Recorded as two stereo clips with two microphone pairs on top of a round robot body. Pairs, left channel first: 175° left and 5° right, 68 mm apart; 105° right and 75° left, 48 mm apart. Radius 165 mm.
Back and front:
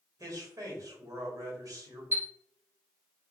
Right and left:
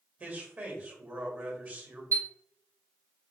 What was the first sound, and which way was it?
A man speaking, 25° left.